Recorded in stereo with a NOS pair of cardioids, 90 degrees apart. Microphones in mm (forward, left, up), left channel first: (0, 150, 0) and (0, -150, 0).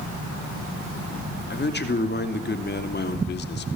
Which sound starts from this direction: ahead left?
A man speaking, at 1.5 s.